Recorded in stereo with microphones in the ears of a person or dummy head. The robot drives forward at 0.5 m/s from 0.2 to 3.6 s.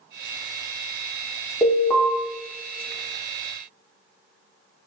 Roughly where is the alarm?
Centre.